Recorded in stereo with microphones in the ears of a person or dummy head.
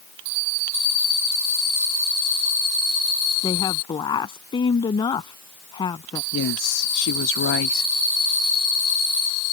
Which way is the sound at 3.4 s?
25° left (ahead or behind).